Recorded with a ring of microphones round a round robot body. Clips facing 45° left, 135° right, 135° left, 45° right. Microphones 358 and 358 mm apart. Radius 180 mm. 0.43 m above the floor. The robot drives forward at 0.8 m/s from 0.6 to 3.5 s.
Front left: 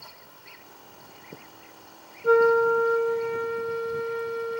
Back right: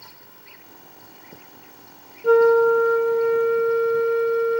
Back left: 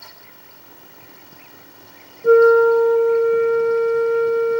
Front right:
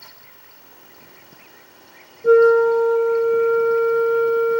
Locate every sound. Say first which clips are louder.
2.2 s a flute: back right 5 dB, back left 1 dB; 135° right, 0.8 m; by 4.6 s 165° right, 1.5 m